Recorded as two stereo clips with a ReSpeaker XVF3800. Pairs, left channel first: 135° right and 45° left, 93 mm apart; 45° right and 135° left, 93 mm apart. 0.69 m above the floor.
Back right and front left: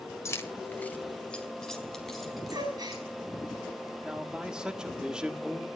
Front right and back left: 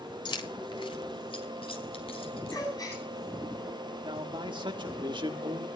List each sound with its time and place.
0.2 s keys jangling: 80° right, 1.8 m; by 3.0 s 45° right, 5 m
2.5 s a gasp: straight ahead, 6 m
4.0 s a man speaking: 125° left, 1.4 m